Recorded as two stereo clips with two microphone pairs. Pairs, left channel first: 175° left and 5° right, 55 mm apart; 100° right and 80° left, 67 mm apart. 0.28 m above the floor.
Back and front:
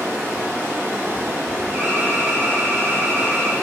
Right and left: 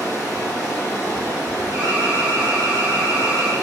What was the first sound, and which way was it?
Running water, 35° right.